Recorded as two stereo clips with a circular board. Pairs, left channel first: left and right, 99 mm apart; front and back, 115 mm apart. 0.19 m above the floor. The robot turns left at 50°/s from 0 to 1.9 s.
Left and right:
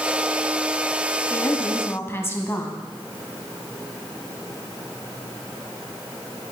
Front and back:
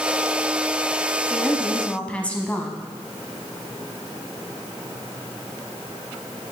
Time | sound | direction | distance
1.3 | a woman speaking | 95° left | 1.0 m